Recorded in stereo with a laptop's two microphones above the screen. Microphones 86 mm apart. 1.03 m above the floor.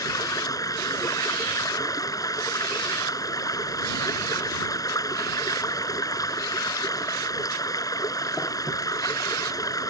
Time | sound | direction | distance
0.0 | running water | 45° left (ahead or behind) | ?